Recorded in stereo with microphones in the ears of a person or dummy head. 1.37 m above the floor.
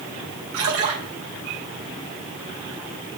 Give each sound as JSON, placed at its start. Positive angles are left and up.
{"t": 0.5, "sound": "a splash", "side_deg": -75, "distance_m": 3.5}